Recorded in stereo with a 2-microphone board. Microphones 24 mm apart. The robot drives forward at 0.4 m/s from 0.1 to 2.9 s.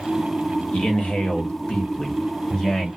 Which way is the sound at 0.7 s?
70° left (ahead or behind).